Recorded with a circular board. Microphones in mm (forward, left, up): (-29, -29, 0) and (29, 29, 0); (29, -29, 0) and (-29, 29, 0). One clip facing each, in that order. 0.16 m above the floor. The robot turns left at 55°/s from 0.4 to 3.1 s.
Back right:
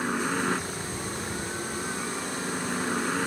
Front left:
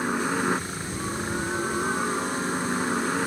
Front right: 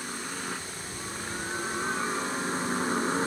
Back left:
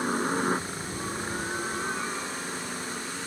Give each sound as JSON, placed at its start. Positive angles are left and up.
{"t": 0.0, "sound": "a helicopter", "azimuth_deg": 120}